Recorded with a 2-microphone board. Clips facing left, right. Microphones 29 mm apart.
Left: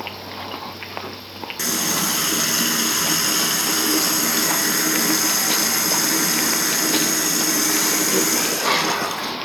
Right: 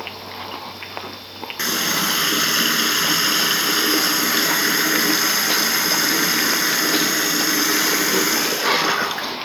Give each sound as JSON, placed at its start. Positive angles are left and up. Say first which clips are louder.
{"t": 1.6, "sound": "a running tap", "louder": "right 2 dB", "side_deg": -25, "distance_m": 1.2}